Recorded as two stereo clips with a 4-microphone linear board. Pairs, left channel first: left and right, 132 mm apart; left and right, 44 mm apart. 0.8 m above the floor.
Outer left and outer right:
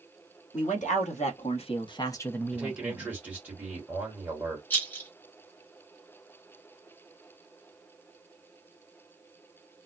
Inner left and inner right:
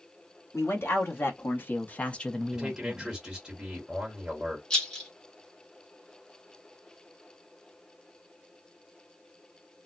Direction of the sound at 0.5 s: 70° left (ahead or behind).